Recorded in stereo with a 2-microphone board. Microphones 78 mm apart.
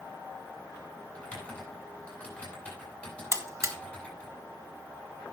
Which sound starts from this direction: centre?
Typing on a keyboard, at 1.1 s.